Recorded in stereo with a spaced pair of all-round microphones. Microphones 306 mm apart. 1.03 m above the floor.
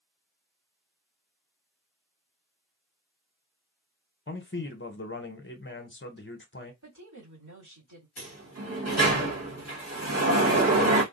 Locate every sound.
4.3 s a man speaking: 40° left (ahead or behind), 0.7 m
6.8 s a woman speaking: 75° right (ahead or behind), 2.5 m
8.2 s a sliding door: 55° right (ahead or behind), 1.4 m